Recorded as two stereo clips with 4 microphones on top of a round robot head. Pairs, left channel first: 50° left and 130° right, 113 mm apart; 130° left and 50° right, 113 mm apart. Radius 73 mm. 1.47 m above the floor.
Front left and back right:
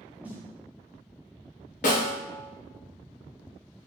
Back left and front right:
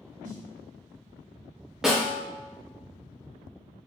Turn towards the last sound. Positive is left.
turn(degrees=35)